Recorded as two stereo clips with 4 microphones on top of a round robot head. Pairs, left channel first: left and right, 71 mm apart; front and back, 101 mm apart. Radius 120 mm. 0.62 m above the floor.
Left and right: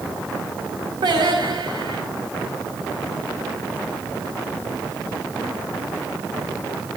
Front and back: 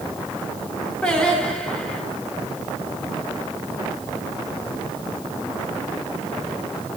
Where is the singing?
80° right, 4 m.